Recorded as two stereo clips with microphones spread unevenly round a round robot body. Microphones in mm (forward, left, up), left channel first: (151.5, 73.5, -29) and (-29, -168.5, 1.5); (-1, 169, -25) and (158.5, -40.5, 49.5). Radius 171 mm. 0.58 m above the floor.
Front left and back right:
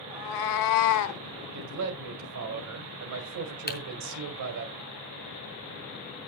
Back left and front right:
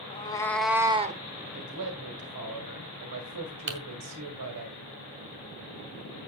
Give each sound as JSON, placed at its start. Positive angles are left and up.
{"t": 0.1, "sound": "a cat meowing", "azimuth_deg": 55, "distance_m": 1.3}
{"t": 1.5, "sound": "a man speaking", "azimuth_deg": -100, "distance_m": 2.0}
{"t": 3.7, "sound": "typing on a keyboard", "azimuth_deg": -5, "distance_m": 2.5}